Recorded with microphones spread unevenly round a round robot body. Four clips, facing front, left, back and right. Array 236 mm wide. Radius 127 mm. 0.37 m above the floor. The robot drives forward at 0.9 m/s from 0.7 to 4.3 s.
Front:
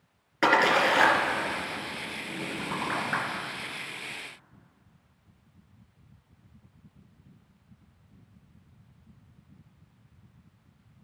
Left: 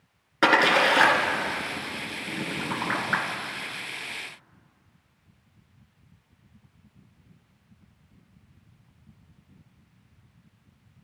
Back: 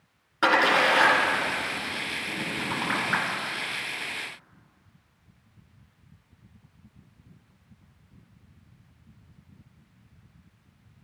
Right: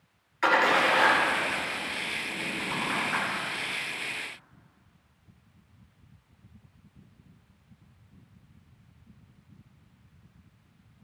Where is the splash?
75° left, 2.5 m; by 3.2 s 120° left, 3 m.